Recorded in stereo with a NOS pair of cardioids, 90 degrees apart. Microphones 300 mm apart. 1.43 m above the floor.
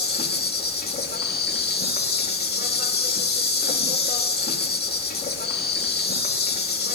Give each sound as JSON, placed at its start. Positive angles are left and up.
{"t": 0.0, "sound": "an insect", "azimuth_deg": 35, "distance_m": 2.5}